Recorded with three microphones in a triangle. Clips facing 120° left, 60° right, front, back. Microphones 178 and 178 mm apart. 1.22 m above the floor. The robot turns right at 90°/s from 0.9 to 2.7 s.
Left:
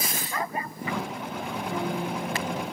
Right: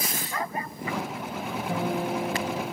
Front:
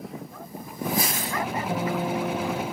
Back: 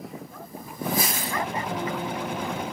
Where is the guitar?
60° right, 2.5 m; by 2.6 s 25° left, 2.5 m.